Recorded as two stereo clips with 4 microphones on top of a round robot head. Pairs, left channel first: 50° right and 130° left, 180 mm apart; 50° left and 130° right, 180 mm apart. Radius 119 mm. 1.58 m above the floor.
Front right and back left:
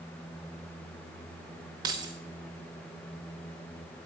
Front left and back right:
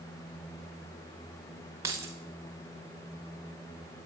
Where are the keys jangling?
170° left, 0.7 m.